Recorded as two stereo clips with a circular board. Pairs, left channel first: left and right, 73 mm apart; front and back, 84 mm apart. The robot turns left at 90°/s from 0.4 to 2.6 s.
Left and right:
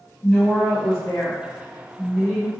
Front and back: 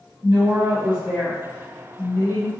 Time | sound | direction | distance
0.2 | a woman speaking | 140° left | 1.1 m